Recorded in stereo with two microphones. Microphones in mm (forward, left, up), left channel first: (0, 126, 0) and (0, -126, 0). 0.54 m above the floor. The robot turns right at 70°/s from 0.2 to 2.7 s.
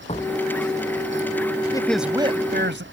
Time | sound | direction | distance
0.1 | a door slam | 25° left (ahead or behind) | ?
1.7 | a man speaking | 165° left | ?